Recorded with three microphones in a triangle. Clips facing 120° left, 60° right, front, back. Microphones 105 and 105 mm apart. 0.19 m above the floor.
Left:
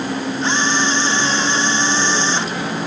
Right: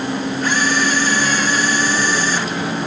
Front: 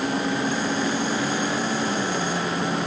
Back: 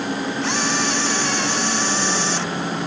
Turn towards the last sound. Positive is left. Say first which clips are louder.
# even, back 1 dB
turn(degrees=-175)